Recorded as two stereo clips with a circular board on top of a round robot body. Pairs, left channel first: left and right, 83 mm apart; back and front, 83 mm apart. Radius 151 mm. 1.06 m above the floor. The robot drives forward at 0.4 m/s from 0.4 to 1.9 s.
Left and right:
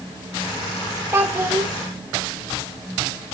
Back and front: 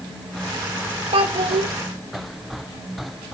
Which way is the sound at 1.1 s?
25° right.